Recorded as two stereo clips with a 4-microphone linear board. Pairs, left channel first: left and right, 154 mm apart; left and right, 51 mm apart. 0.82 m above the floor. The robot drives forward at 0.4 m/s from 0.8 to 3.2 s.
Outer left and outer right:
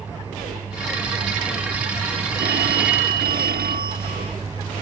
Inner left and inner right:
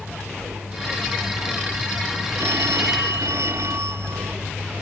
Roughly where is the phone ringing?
Right.